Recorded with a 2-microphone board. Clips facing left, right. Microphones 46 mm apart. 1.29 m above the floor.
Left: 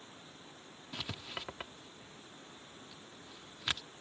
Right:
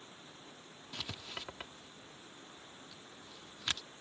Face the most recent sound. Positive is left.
turn(degrees=10)  # may be behind; listen again after turning